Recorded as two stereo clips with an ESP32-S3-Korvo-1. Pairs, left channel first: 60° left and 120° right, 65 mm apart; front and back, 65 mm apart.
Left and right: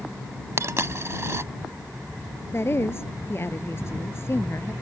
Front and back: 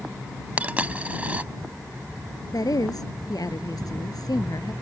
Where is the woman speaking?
10° left.